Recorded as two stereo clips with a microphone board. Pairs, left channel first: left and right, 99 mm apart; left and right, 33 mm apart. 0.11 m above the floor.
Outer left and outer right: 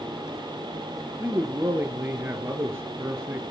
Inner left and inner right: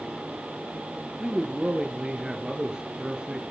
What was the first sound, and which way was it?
A man speaking, 25° right (ahead or behind).